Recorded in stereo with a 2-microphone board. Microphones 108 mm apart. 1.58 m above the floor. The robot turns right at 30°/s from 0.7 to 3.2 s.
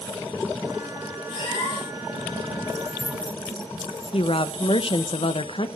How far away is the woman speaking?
About 0.9 m.